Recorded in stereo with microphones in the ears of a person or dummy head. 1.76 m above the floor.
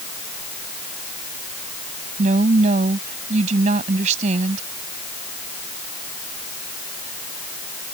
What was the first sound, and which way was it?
A woman speaking, 35° right (ahead or behind).